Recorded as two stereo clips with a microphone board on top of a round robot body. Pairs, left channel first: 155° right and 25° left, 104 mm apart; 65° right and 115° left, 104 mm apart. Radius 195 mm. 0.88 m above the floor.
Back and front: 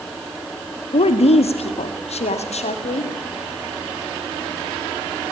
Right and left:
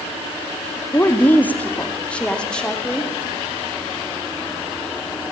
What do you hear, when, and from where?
0.9 s a woman speaking: 135° right, 1.9 m; by 3.1 s 150° right, 3 m